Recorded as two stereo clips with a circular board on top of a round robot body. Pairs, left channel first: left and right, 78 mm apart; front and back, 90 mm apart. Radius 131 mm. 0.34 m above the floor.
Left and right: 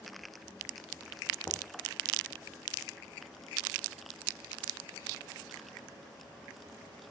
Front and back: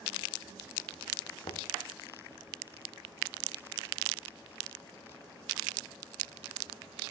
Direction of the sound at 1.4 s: 20° left.